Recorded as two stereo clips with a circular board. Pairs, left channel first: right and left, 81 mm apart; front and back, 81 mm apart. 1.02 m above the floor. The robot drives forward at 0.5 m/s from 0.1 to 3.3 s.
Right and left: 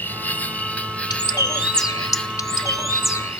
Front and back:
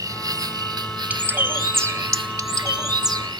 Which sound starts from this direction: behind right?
An insect, at 0.0 s.